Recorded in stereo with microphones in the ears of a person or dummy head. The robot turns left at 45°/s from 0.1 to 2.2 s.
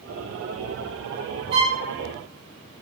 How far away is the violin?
About 0.8 m.